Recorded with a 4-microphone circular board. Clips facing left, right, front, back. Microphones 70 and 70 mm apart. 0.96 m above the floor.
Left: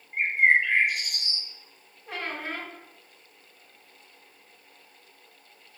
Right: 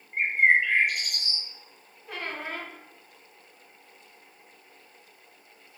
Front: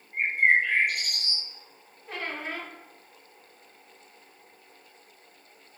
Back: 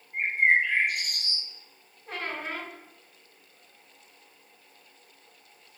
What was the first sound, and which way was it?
A bird, 20° left.